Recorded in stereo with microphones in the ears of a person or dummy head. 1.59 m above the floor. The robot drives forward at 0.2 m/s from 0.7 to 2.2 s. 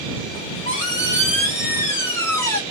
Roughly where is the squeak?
Centre.